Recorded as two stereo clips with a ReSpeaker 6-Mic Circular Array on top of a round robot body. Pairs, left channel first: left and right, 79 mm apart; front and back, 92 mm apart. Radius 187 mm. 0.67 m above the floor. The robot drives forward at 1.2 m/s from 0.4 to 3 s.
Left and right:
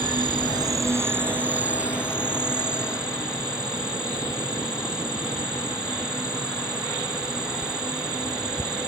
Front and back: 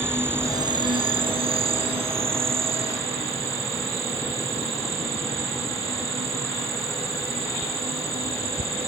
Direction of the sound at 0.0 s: 115° right.